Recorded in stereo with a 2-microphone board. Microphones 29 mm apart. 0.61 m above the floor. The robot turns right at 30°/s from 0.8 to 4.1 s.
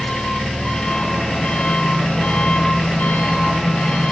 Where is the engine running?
25° left, 6 m; by 4.1 s 125° left, 6 m.